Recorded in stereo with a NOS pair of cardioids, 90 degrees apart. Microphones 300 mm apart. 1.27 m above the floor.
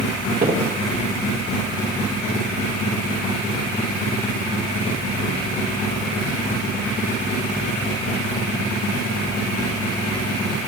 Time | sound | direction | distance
0.4 | footsteps | 30° right | 4 m